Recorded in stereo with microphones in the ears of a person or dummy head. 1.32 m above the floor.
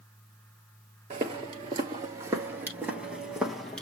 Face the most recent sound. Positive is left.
turn(degrees=5)  # may be behind; listen again after turning